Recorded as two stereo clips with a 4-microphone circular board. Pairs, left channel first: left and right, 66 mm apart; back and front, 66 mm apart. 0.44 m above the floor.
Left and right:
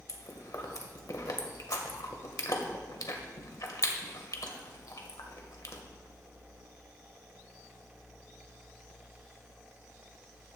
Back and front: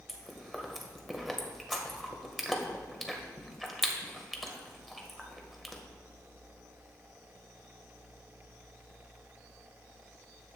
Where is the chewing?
90° left, 1.5 m.